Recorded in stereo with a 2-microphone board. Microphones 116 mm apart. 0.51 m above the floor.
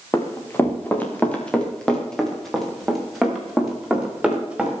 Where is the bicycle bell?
I don't hear a bicycle bell.